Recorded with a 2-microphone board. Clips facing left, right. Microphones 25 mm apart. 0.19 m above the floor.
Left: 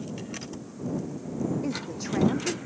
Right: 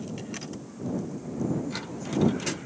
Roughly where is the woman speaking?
Left.